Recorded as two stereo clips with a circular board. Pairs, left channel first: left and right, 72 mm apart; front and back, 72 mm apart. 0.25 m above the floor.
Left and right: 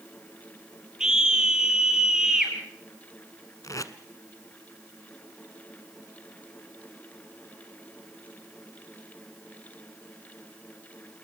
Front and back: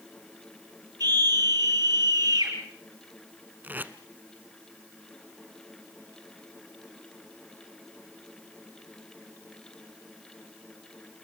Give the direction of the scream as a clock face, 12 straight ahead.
6 o'clock.